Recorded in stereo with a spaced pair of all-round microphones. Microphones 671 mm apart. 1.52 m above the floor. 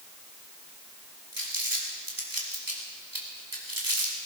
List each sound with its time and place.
1.3 s crumpling: 30° right (ahead or behind), 2.5 m